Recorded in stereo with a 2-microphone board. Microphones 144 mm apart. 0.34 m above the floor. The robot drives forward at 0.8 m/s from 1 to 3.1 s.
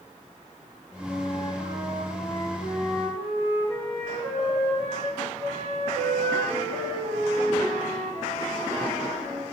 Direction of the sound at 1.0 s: 25° left (ahead or behind).